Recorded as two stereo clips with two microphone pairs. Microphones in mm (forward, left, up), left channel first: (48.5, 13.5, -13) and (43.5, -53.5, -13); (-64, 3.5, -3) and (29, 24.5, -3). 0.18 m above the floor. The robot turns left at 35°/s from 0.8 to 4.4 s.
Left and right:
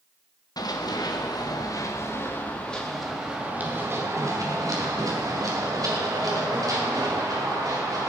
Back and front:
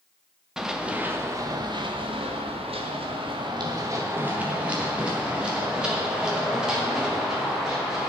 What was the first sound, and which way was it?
Running footsteps, 100° left.